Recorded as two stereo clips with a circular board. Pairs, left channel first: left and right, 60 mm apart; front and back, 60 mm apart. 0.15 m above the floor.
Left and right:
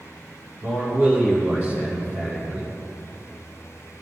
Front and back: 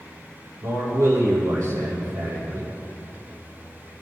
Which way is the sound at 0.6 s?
150° right.